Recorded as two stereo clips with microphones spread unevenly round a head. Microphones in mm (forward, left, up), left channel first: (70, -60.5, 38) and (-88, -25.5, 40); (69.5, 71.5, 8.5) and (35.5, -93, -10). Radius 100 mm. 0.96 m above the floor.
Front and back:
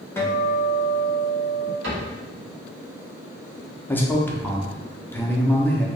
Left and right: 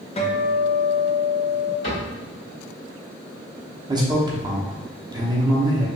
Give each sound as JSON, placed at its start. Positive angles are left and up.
{"t": 0.2, "sound": "a guitar", "azimuth_deg": 50, "distance_m": 0.7}
{"t": 1.8, "sound": "a cupboard door", "azimuth_deg": 140, "distance_m": 1.9}
{"t": 3.9, "sound": "a man speaking", "azimuth_deg": -80, "distance_m": 0.9}